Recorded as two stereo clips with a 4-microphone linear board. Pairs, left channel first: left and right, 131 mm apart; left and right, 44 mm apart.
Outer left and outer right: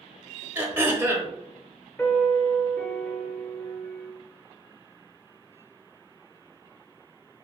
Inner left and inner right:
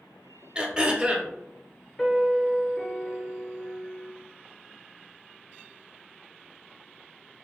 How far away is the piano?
About 0.9 m.